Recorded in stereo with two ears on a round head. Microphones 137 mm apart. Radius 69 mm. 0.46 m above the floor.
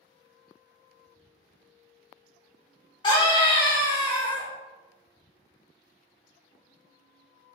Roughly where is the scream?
Left.